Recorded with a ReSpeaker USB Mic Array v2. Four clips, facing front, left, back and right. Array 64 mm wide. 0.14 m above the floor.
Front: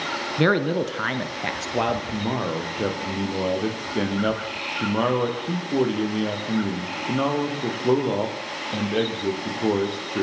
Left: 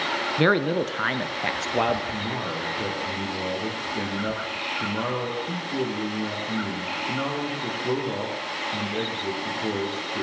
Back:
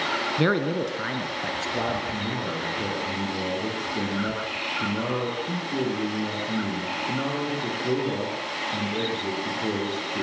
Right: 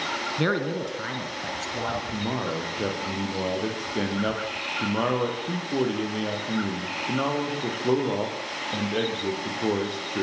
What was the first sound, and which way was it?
A man speaking, 60° left.